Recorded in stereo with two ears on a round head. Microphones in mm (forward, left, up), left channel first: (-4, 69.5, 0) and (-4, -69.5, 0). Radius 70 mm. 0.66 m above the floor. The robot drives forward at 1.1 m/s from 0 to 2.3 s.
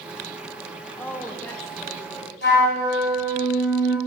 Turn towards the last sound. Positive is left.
turn(degrees=75)  # may be behind; listen again after turning